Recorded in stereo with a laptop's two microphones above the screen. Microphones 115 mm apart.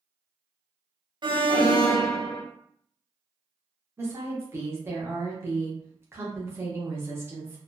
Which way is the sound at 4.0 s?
25° right (ahead or behind).